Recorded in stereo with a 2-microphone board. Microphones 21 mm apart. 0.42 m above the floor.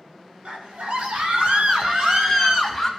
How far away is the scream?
About 3.5 m.